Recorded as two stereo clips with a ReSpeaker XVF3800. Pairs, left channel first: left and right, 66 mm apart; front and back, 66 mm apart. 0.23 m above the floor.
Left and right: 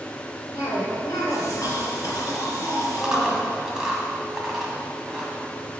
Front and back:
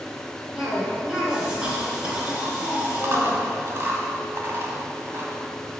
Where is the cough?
105° left, 3 m.